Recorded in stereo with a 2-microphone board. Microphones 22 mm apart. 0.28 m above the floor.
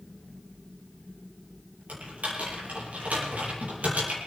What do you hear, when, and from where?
1.9 s typing on a keyboard: 75° right (ahead or behind), 8 m